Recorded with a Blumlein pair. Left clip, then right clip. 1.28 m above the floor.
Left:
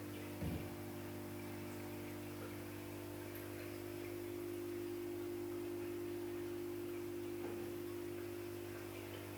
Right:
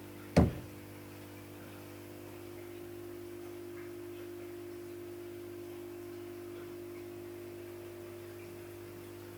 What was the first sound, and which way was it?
Knocking, 45° right.